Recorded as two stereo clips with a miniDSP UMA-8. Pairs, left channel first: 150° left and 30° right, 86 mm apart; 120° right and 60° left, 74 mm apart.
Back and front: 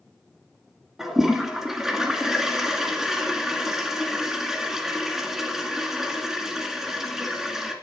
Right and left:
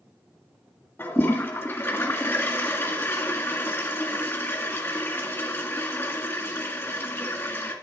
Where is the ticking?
I don't hear ticking.